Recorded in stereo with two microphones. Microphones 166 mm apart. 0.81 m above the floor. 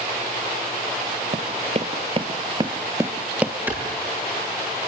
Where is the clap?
10° right (ahead or behind), 8.5 m.